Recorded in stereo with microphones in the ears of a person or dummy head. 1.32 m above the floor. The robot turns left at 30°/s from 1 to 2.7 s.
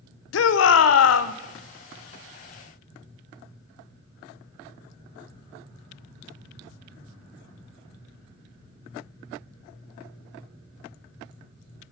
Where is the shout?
75° left (ahead or behind), 0.7 m; by 1.3 s 85° left, 0.7 m.